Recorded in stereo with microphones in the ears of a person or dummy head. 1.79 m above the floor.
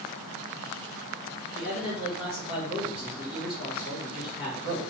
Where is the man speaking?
45° left (ahead or behind), 1.9 m.